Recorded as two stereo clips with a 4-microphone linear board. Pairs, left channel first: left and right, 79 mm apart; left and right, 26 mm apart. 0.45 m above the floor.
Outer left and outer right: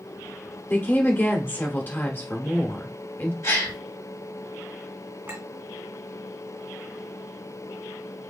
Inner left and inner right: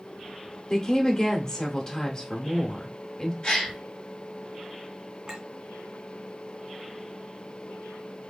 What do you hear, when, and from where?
0.7 s a woman speaking: 25° left (ahead or behind), 0.8 m
3.4 s a gasp: 40° left (ahead or behind), 1.8 m
5.3 s a clink: 30° right (ahead or behind), 1.9 m